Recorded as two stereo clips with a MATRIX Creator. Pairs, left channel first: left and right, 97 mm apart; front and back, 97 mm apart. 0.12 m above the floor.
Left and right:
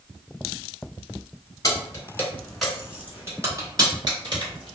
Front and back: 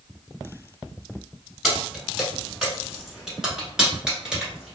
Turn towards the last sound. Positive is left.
turn(degrees=-100)